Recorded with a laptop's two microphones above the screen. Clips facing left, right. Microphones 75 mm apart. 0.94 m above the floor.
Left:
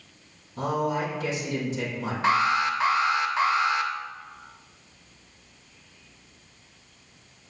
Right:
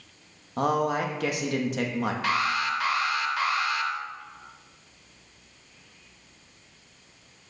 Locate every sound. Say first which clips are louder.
0.6 s a man speaking: right 2 dB; 65° right (ahead or behind), 1.0 m
2.2 s an alarm: left 7 dB; 25° left (ahead or behind), 0.5 m